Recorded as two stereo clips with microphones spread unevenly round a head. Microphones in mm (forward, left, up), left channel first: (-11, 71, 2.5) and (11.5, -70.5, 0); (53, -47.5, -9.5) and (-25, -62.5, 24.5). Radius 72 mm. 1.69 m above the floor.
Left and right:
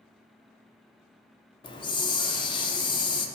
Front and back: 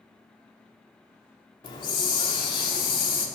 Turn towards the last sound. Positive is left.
turn(degrees=40)